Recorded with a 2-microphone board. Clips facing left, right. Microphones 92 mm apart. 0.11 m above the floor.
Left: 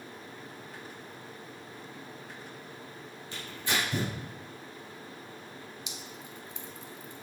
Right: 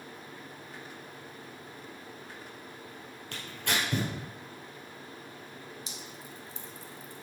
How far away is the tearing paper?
About 3 m.